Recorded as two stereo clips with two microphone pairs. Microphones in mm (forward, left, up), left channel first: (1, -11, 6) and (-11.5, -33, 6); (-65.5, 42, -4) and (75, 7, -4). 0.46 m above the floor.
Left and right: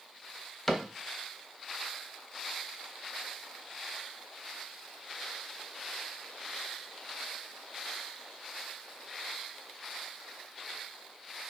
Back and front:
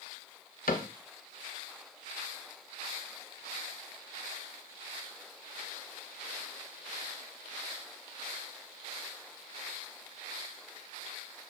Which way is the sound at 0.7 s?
150° left.